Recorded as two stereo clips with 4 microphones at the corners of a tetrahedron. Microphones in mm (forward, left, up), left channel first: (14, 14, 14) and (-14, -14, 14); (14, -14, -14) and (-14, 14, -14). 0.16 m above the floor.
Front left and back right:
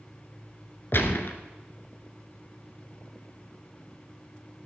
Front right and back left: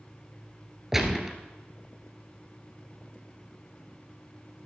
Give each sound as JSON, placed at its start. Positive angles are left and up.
{"t": 0.9, "sound": "a gunshot", "azimuth_deg": 55, "distance_m": 1.2}